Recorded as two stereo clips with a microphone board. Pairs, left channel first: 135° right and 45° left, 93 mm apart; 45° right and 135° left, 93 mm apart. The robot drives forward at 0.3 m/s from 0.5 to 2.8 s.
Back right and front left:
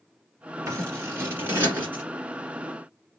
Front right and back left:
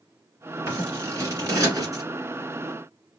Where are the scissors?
90° left, 1.6 m; by 2.0 s 110° left, 1.6 m.